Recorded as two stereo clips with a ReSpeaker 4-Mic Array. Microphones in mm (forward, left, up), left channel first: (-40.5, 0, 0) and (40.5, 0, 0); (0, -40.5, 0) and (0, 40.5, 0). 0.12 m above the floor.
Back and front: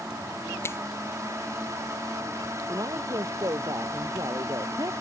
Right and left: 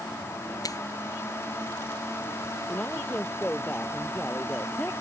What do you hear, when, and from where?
0.6 s a finger snap: 125° right
2.7 s a woman speaking: 20° right